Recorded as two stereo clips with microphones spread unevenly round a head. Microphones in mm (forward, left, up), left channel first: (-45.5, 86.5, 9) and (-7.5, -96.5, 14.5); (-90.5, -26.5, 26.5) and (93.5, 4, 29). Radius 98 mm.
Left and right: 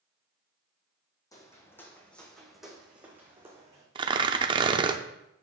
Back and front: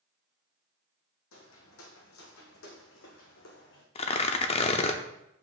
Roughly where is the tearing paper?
Behind right.